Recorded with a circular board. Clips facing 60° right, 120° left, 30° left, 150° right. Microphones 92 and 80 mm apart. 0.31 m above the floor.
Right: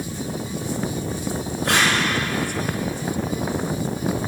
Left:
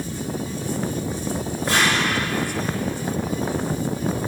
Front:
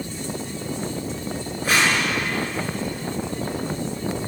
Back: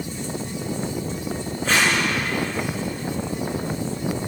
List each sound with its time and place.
1.6 s tape being pulled: 50° right, 4.5 m